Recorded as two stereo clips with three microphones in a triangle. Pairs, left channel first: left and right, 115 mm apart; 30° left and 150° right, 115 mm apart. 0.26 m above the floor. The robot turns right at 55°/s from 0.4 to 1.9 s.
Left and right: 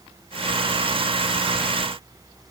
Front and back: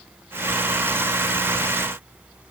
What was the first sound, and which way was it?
Only background noise.